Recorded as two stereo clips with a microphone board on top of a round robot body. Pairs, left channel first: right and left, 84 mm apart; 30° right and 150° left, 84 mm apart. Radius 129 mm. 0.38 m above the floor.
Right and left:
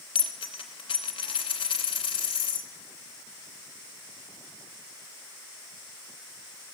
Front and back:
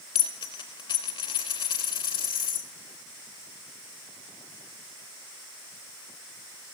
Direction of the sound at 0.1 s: 65° right.